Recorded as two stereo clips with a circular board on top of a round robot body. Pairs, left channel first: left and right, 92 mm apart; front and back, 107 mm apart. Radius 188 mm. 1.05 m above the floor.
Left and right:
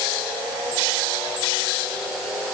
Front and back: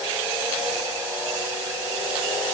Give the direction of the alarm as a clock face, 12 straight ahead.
No alarm in this recording.